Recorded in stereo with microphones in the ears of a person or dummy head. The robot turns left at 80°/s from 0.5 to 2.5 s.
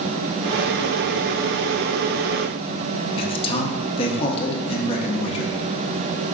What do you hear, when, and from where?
3.2 s a man speaking: 30° left (ahead or behind), 0.5 m